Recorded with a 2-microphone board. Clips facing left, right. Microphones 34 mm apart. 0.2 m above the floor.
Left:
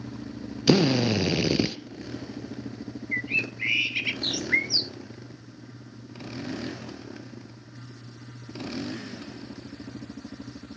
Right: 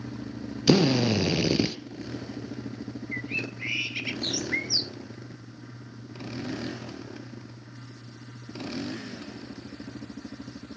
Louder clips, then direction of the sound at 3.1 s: Left 6 dB; 30° left (ahead or behind).